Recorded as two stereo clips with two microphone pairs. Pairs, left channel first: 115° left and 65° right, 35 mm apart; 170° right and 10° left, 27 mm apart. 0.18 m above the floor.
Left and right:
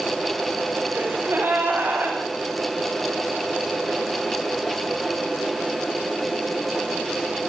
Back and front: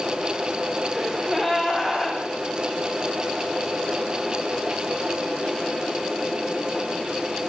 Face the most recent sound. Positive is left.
turn(degrees=-80)